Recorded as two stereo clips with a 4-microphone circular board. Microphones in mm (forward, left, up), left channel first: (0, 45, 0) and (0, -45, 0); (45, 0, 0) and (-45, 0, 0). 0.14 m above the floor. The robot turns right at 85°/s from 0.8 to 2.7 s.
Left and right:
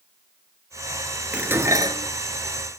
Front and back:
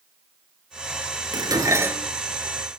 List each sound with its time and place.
1.3 s dishes clattering: 165° right, 1.3 m; by 2.1 s 100° right, 1.3 m